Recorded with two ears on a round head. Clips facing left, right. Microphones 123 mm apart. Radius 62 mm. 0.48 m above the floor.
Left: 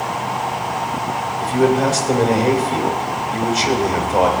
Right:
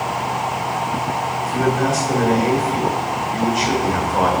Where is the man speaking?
40° left (ahead or behind), 3 m.